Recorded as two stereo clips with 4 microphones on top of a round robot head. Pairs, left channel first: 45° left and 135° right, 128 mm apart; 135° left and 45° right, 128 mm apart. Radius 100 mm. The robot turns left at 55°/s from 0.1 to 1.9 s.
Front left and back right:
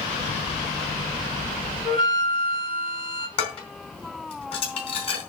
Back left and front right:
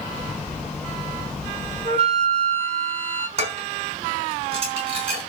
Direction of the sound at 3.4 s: Straight ahead.